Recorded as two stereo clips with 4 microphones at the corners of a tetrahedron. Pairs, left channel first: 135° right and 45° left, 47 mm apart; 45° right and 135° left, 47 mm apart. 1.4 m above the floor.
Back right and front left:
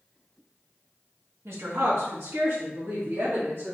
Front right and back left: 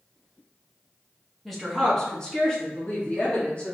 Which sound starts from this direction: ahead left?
A woman speaking, at 1.4 s.